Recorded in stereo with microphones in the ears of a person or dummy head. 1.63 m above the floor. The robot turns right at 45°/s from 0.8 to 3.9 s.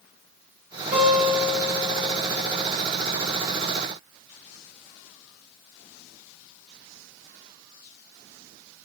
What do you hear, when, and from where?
0.9 s a guitar: 35° right, 7 m; by 2.6 s 40° left, 7 m